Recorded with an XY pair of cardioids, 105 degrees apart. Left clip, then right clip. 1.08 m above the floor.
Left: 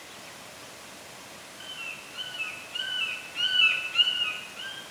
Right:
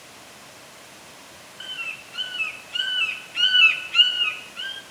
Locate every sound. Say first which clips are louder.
1.6 s a bird: right 7 dB; 50° right, 0.6 m